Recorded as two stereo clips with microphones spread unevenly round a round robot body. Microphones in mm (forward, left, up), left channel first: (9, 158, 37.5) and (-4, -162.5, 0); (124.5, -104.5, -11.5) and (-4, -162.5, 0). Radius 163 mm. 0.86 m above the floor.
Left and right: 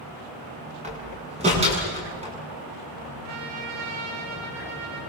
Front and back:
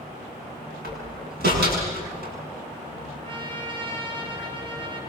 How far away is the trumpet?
About 9.5 m.